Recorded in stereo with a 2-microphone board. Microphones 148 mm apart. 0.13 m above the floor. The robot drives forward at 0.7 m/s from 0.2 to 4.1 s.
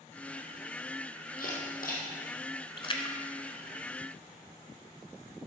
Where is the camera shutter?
75° left (ahead or behind), 2 m; by 2.1 s 70° left (ahead or behind), 2 m.